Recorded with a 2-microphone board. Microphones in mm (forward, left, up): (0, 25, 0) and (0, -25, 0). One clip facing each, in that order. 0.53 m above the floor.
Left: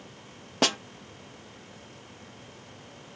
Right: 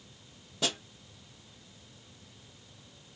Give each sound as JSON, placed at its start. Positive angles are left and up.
{"t": 0.6, "sound": "a snare drum", "side_deg": 65, "distance_m": 0.6}